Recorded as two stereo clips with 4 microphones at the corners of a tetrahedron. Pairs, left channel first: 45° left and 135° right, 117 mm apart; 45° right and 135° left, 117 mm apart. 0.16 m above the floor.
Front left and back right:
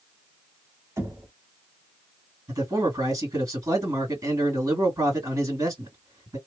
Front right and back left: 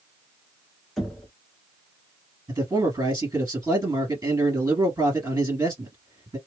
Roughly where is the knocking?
Behind right.